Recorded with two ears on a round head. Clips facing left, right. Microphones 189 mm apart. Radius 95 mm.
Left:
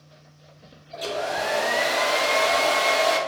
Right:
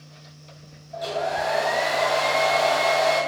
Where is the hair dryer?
35° left (ahead or behind), 0.5 m.